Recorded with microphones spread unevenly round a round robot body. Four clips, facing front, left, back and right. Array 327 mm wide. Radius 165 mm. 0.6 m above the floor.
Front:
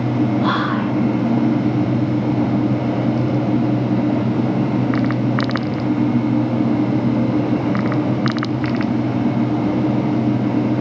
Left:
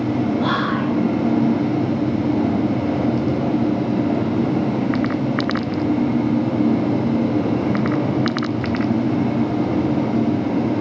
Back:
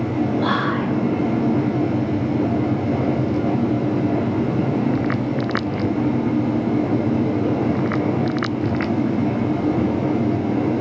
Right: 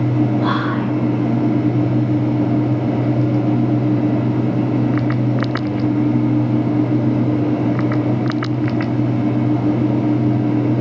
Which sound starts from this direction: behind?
Whispering, at 0.4 s.